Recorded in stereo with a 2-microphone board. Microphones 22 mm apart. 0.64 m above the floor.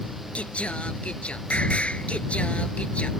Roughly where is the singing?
Left.